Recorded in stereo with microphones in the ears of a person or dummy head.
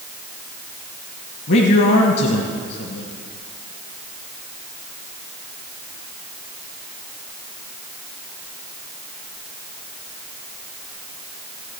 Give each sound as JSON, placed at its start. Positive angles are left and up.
{"t": 1.5, "sound": "a man speaking", "side_deg": 60, "distance_m": 1.3}